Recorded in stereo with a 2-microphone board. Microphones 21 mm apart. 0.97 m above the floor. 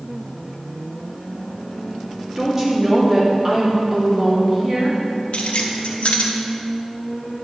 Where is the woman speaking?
30° right (ahead or behind), 2 m.